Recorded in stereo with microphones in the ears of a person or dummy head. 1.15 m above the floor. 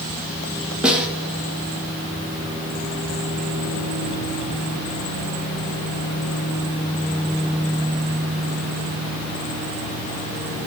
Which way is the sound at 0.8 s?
10° right (ahead or behind).